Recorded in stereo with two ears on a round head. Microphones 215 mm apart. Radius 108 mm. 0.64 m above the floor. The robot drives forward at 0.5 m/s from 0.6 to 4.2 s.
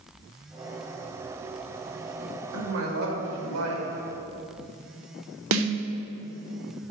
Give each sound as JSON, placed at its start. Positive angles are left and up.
{"t": 2.5, "sound": "a woman speaking", "side_deg": -65, "distance_m": 2.5}
{"t": 5.5, "sound": "a snare drum", "side_deg": -65, "distance_m": 0.9}